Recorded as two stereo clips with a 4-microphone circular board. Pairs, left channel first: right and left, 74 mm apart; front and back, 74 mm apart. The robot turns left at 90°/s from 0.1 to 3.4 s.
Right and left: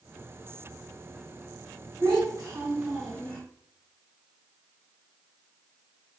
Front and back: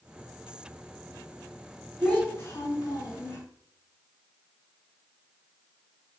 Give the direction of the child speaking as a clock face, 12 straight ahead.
9 o'clock.